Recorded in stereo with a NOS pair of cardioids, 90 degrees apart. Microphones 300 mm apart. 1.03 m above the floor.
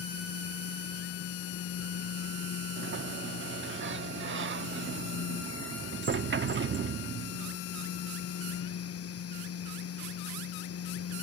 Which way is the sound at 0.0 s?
50° left.